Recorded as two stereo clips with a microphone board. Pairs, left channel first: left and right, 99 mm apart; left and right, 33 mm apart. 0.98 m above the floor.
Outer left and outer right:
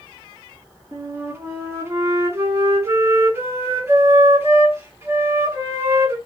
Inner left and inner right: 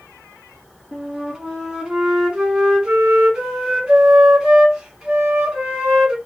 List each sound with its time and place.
0.9 s a flute: 25° right (ahead or behind), 1.7 m